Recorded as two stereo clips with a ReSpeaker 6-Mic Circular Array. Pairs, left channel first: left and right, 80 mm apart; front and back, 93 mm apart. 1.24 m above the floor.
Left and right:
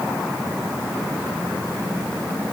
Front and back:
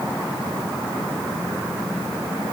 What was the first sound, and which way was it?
Only background noise.